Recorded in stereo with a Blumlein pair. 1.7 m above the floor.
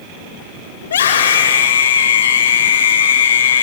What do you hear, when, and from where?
0.8 s a scream: 65° left, 5 m